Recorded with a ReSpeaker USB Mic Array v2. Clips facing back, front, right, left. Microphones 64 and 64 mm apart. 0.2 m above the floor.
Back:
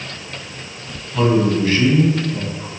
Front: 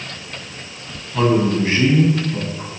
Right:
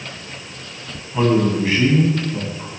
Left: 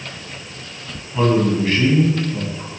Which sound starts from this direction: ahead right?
A man speaking, at 1.1 s.